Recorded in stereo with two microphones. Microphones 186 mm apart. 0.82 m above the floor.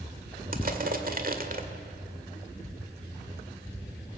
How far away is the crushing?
About 1.7 m.